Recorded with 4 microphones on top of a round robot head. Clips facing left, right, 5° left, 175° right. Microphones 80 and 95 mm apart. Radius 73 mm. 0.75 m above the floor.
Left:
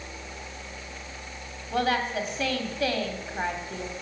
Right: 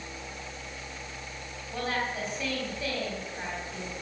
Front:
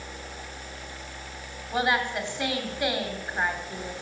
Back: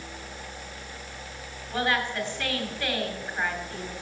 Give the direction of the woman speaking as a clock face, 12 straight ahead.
9 o'clock.